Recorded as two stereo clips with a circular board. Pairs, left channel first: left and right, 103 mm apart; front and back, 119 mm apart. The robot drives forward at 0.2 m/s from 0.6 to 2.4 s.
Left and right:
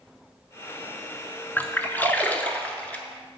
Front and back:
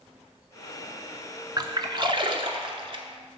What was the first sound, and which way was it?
A splash, 150° left.